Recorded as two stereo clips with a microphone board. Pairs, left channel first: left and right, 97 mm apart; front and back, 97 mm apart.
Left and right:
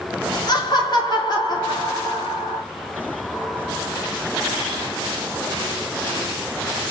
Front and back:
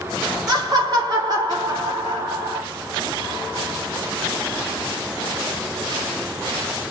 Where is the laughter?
135° left, 1.6 m.